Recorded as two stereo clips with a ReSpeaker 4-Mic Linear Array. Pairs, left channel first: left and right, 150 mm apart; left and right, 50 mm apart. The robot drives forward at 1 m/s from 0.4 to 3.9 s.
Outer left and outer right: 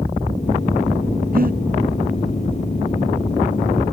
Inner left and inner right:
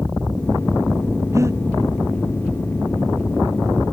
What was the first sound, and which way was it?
Breathing, 70° right (ahead or behind).